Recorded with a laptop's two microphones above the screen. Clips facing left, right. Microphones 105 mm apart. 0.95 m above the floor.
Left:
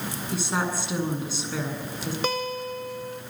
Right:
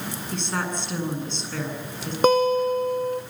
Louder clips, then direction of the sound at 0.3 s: Left 1 dB; 10° left (ahead or behind).